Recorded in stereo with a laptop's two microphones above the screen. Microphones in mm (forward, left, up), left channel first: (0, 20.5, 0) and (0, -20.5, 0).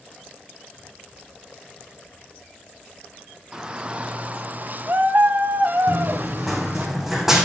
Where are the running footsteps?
5° left (ahead or behind), 4 m; by 7.5 s 10° right (ahead or behind), 3.5 m.